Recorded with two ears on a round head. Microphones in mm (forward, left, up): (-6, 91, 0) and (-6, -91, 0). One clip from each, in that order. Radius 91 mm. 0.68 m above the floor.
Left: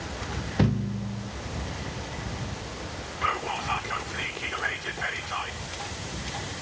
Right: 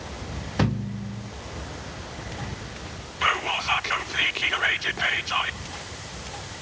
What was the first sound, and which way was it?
A thud, 45° right (ahead or behind).